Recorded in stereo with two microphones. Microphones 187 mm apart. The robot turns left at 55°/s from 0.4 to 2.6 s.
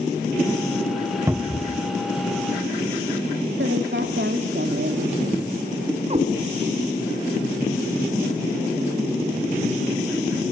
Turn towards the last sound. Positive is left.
turn(degrees=-35)  # may be behind; listen again after turning